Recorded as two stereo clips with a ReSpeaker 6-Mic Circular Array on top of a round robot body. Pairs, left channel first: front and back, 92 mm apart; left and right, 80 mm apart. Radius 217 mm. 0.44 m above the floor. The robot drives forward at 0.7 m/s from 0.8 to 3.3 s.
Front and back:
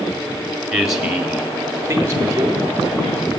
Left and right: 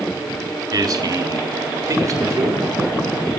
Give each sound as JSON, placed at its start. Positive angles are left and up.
{"t": 0.7, "sound": "a man speaking", "azimuth_deg": -95, "distance_m": 2.0}